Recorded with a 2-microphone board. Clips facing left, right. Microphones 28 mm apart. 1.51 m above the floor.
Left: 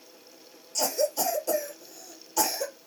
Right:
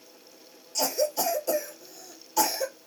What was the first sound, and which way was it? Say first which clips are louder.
A cough: even; 10° right (ahead or behind).